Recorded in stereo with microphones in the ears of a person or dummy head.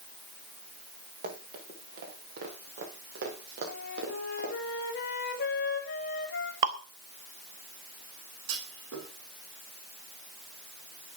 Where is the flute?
55° left (ahead or behind), 3 m.